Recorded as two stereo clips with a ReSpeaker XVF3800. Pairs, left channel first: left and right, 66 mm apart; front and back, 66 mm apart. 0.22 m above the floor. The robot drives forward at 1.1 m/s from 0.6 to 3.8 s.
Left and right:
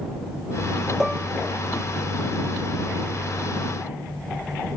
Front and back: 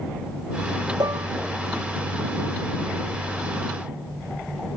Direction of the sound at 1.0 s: 175° right.